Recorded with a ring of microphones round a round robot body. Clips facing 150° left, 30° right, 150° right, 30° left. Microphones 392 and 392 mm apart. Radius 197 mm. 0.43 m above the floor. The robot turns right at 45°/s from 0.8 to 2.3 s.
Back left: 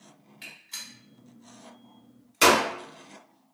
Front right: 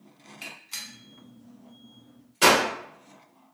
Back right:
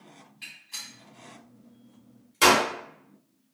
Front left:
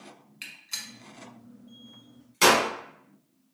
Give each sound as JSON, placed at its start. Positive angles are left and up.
{"t": 0.4, "sound": "a gunshot", "azimuth_deg": 45, "distance_m": 1.0}